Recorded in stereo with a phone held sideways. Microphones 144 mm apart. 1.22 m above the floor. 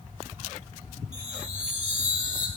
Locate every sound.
1.1 s a chime: 55° right (ahead or behind), 1.9 m